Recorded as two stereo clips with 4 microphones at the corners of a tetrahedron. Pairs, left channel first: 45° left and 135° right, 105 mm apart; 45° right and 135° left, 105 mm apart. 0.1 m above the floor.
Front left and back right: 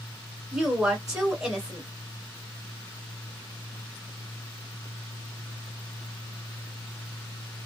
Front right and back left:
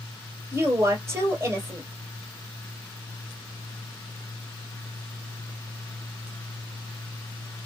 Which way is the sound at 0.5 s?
155° left.